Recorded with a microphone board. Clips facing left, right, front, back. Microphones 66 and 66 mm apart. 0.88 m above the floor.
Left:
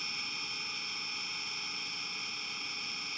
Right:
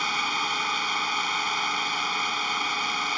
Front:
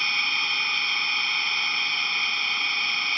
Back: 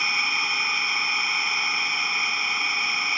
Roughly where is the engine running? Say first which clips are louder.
Right 16 dB, back 1 dB; right.